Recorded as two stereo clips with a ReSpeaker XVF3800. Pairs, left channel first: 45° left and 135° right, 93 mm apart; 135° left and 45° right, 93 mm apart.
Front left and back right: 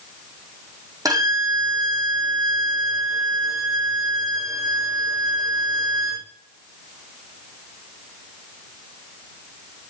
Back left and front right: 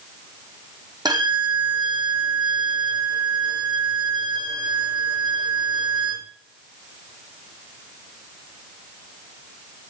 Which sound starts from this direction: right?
A violin, at 1.1 s.